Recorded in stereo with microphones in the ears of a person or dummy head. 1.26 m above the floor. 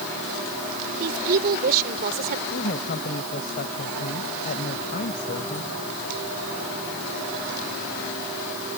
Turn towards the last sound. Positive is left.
turn(degrees=50)  # may be behind; listen again after turning